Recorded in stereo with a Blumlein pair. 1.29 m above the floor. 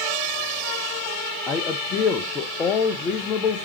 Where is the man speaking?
25° left, 0.5 m.